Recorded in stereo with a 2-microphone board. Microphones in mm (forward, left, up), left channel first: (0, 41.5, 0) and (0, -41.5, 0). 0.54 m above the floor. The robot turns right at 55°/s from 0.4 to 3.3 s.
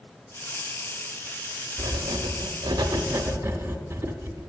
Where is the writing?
120° right, 0.6 m; by 4.5 s 40° right, 0.6 m.